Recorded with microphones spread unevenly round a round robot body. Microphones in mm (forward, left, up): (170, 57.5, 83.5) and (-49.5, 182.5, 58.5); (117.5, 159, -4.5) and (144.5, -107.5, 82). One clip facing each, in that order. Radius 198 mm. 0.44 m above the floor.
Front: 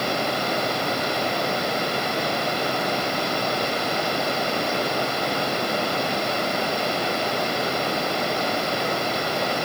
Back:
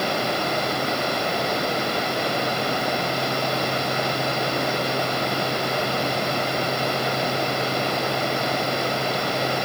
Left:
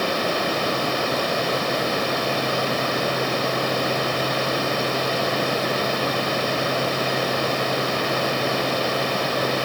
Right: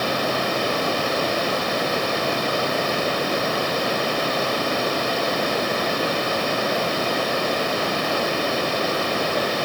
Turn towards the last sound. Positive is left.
No sound to turn to.